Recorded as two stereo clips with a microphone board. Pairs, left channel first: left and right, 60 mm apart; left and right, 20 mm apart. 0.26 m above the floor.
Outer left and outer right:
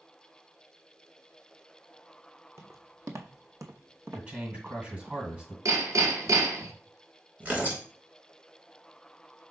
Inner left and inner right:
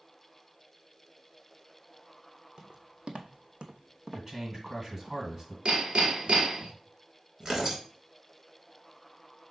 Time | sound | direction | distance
2.6 | footsteps | 55° right (ahead or behind) | 1.0 m
4.1 | a man speaking | 25° right (ahead or behind) | 1.7 m
5.7 | hammering | 70° right (ahead or behind) | 1.0 m
7.4 | tearing paper | 25° right (ahead or behind) | 1.5 m